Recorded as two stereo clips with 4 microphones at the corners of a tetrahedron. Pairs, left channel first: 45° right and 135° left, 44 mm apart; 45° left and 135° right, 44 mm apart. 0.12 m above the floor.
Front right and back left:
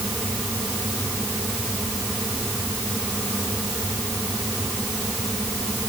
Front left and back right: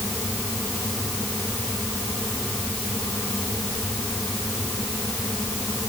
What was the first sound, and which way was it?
Only background noise.